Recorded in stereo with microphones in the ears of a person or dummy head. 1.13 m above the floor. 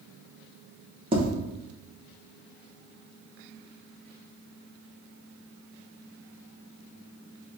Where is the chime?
I don't hear a chime.